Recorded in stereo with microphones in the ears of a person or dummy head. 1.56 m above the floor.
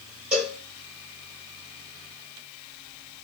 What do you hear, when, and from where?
0.3 s a cowbell: 5° right (ahead or behind), 3 m